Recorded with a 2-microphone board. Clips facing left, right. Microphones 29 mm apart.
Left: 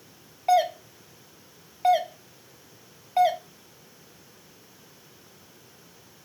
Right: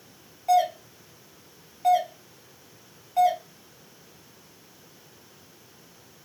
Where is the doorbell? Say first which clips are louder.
Even; 30° left (ahead or behind), 0.8 m.